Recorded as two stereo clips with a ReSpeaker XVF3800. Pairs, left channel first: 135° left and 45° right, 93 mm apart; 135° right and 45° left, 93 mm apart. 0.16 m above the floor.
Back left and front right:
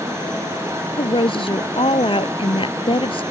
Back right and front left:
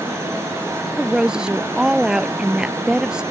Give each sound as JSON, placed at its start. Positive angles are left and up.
{"t": 1.0, "sound": "a woman speaking", "azimuth_deg": 125}